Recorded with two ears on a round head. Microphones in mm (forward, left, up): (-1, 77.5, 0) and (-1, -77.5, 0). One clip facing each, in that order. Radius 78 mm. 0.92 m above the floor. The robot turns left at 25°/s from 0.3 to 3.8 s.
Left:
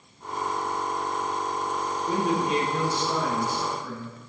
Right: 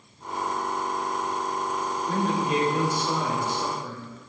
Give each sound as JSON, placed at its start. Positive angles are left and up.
{"t": 2.1, "sound": "a man speaking", "azimuth_deg": 10, "distance_m": 3.0}